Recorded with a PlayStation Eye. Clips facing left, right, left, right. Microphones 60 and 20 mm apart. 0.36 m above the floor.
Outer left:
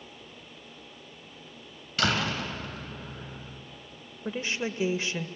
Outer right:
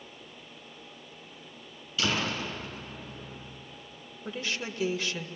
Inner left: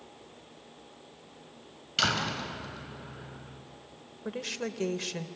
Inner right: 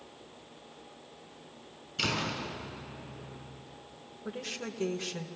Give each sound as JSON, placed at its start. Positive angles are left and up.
{"t": 2.0, "sound": "a door slam", "side_deg": 70, "distance_m": 3.5}
{"t": 4.2, "sound": "a woman speaking", "side_deg": 25, "distance_m": 1.2}